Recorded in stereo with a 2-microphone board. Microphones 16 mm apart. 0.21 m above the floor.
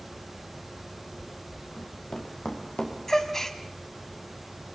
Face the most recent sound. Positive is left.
turn(degrees=25)  # may be behind; listen again after turning